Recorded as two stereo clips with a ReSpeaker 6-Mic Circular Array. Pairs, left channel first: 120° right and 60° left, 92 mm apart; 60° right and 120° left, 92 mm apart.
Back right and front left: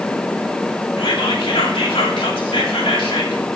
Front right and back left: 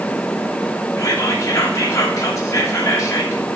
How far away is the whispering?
About 2.5 m.